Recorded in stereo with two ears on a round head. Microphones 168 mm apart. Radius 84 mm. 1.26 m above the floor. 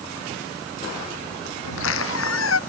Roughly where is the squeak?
Left.